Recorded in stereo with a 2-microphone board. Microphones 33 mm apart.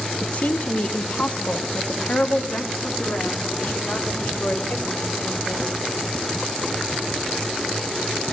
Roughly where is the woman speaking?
Left.